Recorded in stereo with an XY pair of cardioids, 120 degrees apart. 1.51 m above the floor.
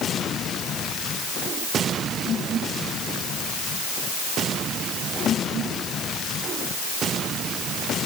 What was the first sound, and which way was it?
Only background noise.